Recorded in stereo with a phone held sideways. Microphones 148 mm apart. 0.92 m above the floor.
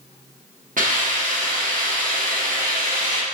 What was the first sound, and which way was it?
A hiss, 65° right (ahead or behind).